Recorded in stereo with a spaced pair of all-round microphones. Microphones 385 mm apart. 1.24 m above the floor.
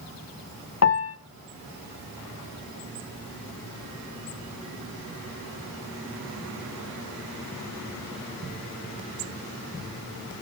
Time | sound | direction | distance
0.8 | a piano | 40° left (ahead or behind) | 0.6 m